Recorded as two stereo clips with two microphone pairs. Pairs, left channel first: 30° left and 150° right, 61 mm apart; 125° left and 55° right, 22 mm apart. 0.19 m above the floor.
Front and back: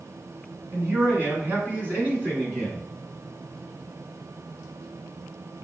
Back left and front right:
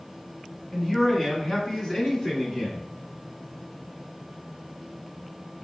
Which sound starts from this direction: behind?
A man speaking, at 0.7 s.